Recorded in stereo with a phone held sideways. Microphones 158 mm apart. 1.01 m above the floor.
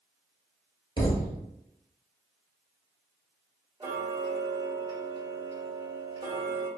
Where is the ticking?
30° right (ahead or behind), 0.9 m.